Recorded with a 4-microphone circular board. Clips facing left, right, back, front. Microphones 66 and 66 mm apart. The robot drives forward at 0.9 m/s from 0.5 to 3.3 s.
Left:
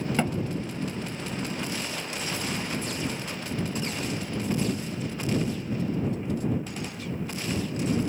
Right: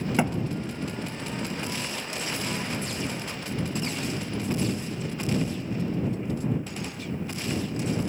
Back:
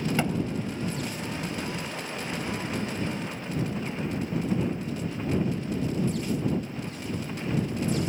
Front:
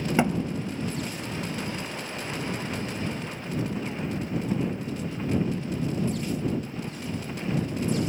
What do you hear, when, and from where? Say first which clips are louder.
0.2 s a thud: right 2 dB, front 7 dB; 30° right, 0.5 m